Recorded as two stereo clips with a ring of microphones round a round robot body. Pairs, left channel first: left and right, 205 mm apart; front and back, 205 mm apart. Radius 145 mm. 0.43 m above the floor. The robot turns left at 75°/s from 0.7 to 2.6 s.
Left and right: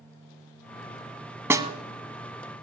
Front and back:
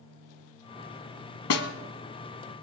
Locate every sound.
1.5 s a snare drum: 10° right, 1.0 m; by 1.7 s 25° right, 1.0 m